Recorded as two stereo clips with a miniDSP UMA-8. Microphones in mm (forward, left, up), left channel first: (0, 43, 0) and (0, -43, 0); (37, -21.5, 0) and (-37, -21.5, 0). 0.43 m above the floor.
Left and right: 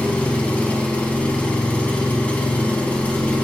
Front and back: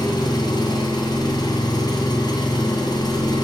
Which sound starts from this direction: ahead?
An engine running, at 0.0 s.